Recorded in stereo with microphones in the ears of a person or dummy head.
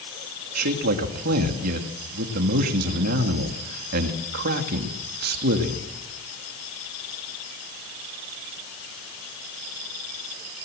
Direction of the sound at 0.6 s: 55° right (ahead or behind).